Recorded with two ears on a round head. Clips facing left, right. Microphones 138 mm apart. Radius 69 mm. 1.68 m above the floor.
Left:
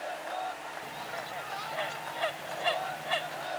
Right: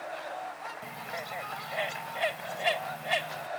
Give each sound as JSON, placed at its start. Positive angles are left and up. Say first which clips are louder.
{"t": 0.8, "sound": "a bird", "louder": "even", "side_deg": -20}